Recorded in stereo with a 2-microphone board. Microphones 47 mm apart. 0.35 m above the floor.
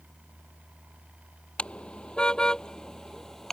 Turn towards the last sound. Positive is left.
turn(degrees=10)  # may be behind; listen again after turning